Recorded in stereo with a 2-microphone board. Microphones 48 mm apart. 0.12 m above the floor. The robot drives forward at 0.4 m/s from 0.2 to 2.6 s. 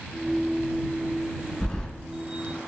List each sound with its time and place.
1.6 s keys jangling: 20° left (ahead or behind), 1.1 m